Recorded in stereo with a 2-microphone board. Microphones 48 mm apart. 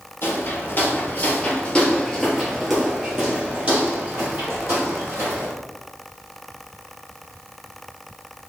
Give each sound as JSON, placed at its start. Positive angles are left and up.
{"t": 0.2, "sound": "footsteps", "side_deg": 55, "distance_m": 1.7}